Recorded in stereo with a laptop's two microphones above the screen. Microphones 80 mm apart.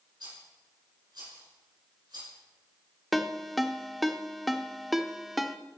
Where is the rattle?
65° right (ahead or behind), 5 m.